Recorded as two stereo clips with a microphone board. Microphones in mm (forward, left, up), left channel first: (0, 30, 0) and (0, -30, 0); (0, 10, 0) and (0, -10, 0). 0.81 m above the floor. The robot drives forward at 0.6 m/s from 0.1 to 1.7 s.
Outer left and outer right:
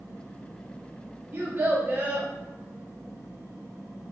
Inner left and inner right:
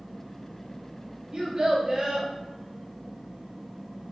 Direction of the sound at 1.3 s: 40° right (ahead or behind).